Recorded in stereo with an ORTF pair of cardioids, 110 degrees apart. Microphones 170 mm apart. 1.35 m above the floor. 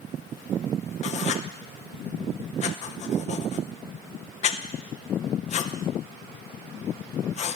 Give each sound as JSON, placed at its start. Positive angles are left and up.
{"t": 1.0, "sound": "writing", "azimuth_deg": 45, "distance_m": 0.7}